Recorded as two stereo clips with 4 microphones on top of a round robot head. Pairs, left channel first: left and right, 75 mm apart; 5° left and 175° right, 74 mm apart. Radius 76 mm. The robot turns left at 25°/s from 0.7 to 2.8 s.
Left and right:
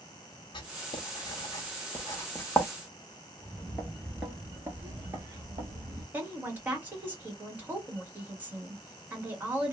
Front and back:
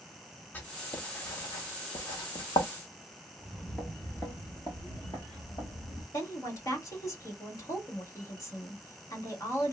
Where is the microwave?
I don't hear a microwave.